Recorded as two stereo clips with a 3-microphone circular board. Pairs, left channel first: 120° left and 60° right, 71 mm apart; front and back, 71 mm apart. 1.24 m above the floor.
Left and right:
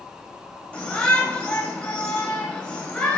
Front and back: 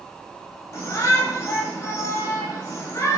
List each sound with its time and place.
0.7 s a shout: 55° left, 4.5 m